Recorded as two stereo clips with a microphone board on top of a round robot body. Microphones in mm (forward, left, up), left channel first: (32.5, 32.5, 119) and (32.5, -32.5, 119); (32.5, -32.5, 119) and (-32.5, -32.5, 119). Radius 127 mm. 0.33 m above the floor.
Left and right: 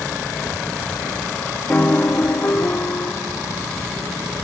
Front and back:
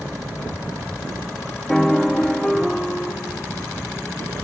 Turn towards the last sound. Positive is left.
turn(degrees=75)